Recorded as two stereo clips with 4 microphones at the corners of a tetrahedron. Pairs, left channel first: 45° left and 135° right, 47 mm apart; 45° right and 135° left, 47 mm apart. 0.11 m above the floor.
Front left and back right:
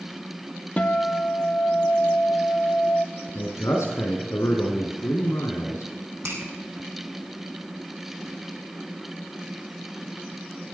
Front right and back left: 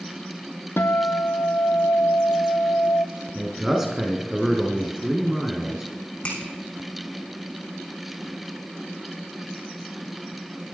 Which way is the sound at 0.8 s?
15° right.